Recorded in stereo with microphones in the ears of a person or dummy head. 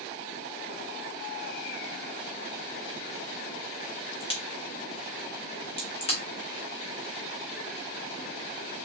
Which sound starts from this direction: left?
A crack, at 4.2 s.